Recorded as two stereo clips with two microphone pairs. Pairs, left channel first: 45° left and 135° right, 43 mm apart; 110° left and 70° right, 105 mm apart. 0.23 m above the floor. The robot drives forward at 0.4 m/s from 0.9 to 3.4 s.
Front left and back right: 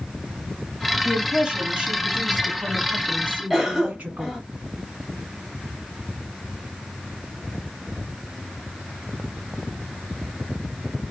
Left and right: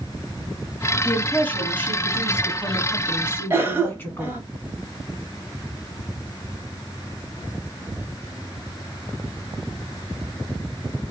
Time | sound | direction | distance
1.1 | a woman speaking | 170° left | 1.0 m
3.5 | a cough | 70° right | 1.1 m